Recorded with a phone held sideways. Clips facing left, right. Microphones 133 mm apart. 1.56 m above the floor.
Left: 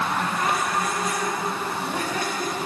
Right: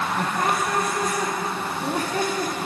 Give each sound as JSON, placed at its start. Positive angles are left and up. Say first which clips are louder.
{"t": 0.2, "sound": "laughter", "louder": "right 1 dB", "side_deg": -40, "distance_m": 0.7}